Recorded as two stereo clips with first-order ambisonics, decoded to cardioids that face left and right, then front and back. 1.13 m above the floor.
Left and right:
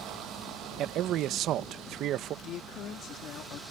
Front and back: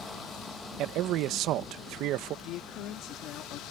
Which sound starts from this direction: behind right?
A man speaking, at 0.8 s.